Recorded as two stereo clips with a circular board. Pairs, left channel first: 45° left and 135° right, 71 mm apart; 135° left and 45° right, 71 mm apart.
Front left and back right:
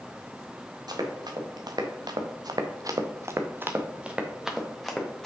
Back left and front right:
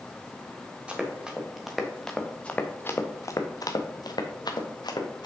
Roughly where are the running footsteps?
Behind right.